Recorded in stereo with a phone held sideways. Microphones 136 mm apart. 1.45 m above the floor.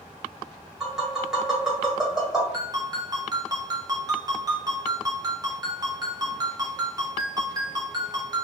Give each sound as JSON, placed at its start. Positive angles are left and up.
{"t": 0.8, "sound": "tapping", "side_deg": -5, "distance_m": 1.5}
{"t": 2.5, "sound": "a ringtone", "side_deg": -30, "distance_m": 0.8}